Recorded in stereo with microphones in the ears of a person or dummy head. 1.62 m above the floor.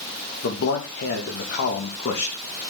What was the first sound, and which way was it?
A man speaking, 60° left (ahead or behind).